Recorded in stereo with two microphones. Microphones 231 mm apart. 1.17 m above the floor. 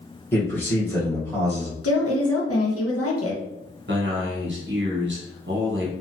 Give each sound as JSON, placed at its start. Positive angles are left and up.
{"t": 0.3, "sound": "a man speaking", "side_deg": 10, "distance_m": 1.2}
{"t": 1.8, "sound": "a woman speaking", "side_deg": 80, "distance_m": 0.9}
{"t": 3.9, "sound": "a man speaking", "side_deg": -50, "distance_m": 1.0}